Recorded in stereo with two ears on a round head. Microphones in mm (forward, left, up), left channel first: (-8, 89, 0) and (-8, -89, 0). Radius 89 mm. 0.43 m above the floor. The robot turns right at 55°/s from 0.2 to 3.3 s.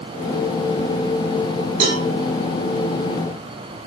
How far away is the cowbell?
About 2.5 m.